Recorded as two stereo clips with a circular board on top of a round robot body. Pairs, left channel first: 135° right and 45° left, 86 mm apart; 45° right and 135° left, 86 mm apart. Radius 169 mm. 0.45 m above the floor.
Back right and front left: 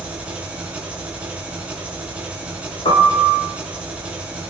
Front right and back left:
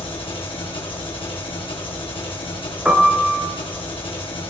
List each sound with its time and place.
0.0 s an engine running: 30° right, 5.5 m
2.9 s a piano: 145° right, 3.5 m